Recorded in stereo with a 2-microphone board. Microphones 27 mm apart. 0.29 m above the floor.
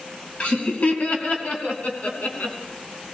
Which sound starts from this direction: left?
Laughter, at 0.4 s.